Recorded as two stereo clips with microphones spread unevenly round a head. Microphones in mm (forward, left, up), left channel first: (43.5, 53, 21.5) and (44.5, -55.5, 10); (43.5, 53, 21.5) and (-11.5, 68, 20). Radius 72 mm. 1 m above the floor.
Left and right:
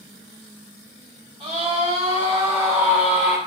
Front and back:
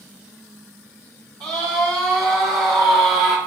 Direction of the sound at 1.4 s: 150° right.